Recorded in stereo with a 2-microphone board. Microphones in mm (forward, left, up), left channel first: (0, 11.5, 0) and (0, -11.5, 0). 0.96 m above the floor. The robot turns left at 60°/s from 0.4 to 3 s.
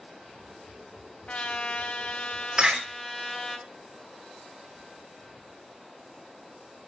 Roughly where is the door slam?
Right.